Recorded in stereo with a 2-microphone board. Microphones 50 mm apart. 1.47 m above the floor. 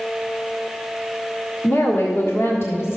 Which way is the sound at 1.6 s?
60° left (ahead or behind).